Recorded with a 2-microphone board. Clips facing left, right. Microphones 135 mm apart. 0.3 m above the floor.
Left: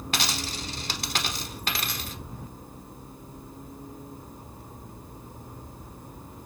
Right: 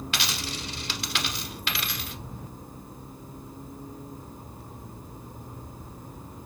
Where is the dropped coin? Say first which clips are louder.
Left 5 dB; 45° left (ahead or behind), 0.5 m.